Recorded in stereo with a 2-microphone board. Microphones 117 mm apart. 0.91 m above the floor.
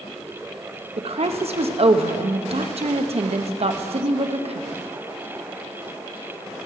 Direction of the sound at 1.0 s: 60° right (ahead or behind).